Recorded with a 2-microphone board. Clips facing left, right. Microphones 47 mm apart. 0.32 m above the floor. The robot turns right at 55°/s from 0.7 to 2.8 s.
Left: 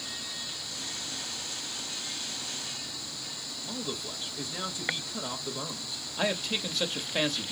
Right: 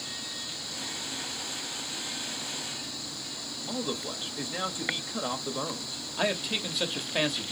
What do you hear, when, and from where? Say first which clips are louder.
3.7 s a man speaking: right 4 dB; 25° right (ahead or behind), 1.1 m
6.2 s a man speaking: right 1 dB; 5° right (ahead or behind), 1.0 m